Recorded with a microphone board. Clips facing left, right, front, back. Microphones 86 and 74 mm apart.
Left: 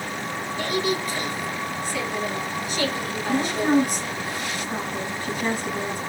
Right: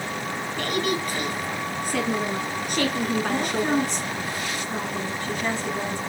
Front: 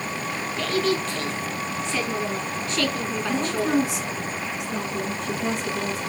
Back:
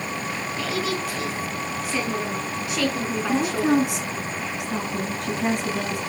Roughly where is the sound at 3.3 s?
Behind.